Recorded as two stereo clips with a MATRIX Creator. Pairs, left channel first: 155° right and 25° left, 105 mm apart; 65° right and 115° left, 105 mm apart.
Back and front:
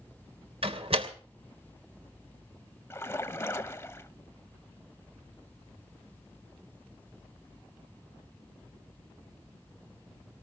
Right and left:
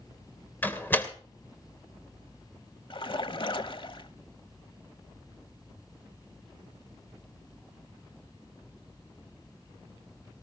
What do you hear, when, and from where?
0.6 s a door slam: 5° left, 2.5 m
2.9 s a splash: 95° right, 1.0 m